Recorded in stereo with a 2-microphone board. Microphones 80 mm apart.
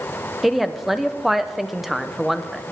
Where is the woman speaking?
Centre (ahead or behind), 0.8 m.